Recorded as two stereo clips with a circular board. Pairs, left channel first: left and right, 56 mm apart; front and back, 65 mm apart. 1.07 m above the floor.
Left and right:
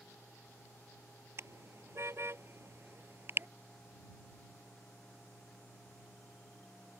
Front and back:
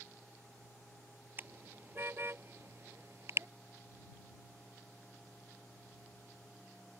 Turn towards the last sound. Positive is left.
turn(degrees=-135)